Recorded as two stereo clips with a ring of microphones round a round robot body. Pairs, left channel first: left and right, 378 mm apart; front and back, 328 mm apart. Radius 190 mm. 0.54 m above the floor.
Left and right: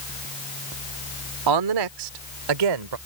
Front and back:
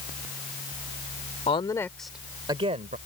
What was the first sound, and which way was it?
A woman speaking, 70° right.